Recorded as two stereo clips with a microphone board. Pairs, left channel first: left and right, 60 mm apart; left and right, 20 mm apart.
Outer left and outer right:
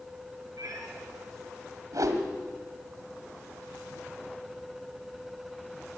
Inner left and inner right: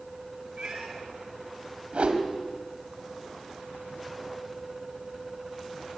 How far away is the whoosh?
About 2 m.